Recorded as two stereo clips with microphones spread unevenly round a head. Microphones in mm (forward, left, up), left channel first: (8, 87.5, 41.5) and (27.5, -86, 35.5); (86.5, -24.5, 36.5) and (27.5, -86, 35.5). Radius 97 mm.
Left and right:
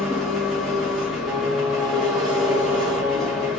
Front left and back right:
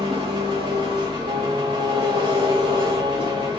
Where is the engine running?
175° right, 1.5 m.